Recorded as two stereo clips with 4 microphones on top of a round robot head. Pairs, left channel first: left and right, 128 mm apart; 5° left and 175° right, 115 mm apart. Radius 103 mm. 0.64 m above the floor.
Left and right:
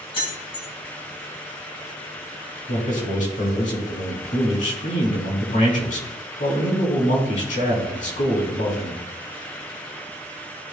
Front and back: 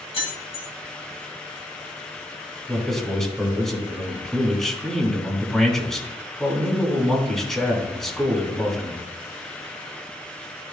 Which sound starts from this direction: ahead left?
Keys jangling, at 0.1 s.